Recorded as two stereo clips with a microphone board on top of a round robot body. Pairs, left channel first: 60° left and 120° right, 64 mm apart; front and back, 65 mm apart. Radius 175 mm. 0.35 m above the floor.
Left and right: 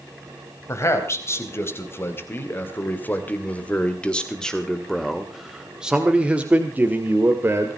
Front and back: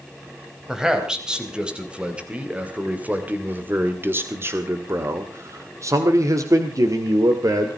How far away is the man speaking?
About 3.5 m.